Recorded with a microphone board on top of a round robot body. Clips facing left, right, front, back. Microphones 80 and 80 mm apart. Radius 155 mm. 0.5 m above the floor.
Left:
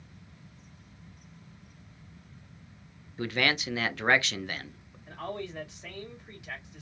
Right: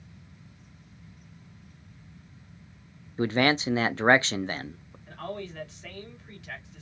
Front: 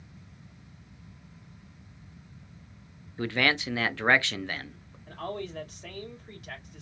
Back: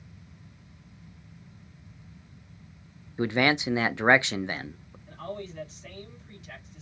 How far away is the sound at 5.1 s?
About 3 m.